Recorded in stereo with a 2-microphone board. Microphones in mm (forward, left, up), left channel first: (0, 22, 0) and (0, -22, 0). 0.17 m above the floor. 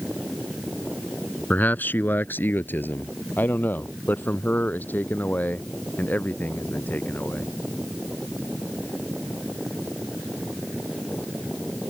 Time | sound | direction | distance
1.5 | a man speaking | 45° left (ahead or behind) | ?